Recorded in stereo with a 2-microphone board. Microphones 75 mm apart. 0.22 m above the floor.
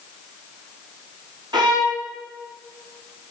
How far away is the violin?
About 2.5 m.